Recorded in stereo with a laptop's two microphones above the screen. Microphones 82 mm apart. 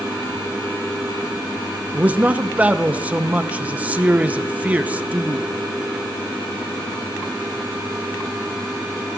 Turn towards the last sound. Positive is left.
turn(degrees=-15)  # may be behind; listen again after turning